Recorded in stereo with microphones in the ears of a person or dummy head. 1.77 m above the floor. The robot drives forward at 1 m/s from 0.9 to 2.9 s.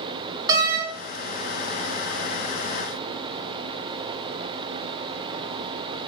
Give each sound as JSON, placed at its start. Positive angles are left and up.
{"t": 0.5, "sound": "a door slam", "side_deg": -20, "distance_m": 1.9}